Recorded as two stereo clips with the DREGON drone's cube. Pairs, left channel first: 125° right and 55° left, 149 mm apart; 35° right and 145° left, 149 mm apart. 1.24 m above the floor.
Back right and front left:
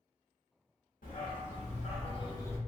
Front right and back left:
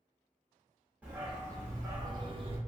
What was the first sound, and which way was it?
A dog barking, 135° right.